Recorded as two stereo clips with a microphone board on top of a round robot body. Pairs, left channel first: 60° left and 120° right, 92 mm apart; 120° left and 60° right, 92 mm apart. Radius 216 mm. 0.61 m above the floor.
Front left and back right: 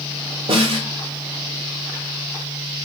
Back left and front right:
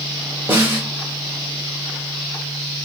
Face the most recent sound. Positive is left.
turn(degrees=-130)